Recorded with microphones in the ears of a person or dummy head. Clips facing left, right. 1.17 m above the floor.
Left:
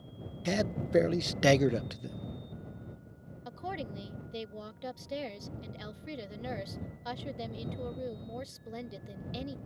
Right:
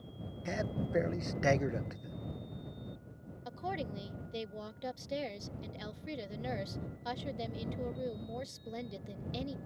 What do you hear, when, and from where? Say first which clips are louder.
0.5 s a man speaking: left 5 dB; 45° left (ahead or behind)
3.5 s a woman speaking: even; centre (ahead or behind)